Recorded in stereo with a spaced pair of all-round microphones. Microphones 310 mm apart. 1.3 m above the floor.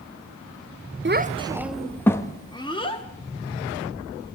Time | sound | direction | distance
1.1 | a child speaking | 40° right (ahead or behind) | 0.5 m